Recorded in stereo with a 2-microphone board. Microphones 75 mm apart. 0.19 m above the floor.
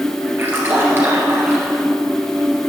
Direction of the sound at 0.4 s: 30° right (ahead or behind).